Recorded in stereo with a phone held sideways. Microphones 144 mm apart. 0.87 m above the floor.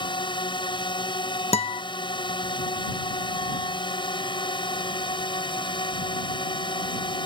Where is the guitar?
45° left (ahead or behind).